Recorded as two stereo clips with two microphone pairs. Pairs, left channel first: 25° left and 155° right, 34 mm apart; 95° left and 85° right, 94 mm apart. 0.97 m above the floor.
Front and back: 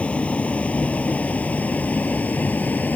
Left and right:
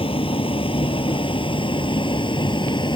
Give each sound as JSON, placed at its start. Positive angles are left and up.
{"t": 0.0, "sound": "a vehicle", "azimuth_deg": 75}